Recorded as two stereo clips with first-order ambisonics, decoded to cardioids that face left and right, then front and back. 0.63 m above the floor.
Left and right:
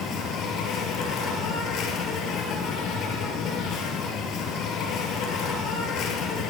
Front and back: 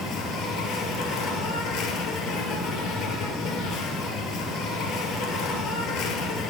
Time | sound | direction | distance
0.0 | an insect | 45° left | 2 m